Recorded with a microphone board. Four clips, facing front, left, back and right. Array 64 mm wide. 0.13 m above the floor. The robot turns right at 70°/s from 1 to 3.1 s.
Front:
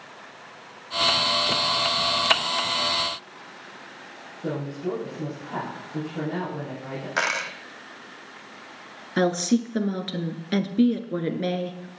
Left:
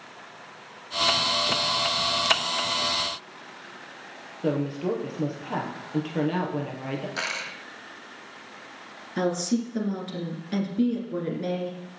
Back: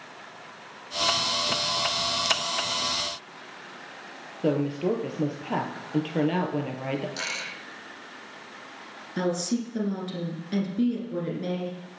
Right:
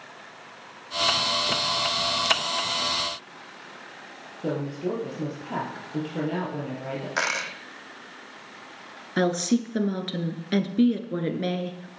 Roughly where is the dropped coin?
Ahead right.